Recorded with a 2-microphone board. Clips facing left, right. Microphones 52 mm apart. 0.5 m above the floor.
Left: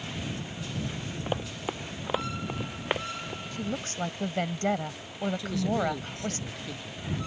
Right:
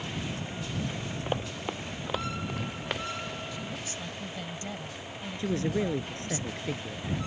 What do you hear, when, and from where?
1.3 s running footsteps: centre (ahead or behind); by 3.4 s 25° left (ahead or behind)
3.5 s a woman speaking: 55° left (ahead or behind)
5.4 s a man speaking: 35° right (ahead or behind)